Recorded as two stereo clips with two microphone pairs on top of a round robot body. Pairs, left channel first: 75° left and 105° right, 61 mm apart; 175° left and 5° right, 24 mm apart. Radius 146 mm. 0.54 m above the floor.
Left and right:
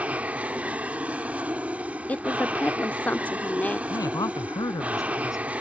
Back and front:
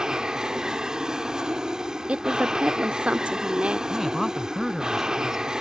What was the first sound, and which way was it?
An aircraft, 45° right.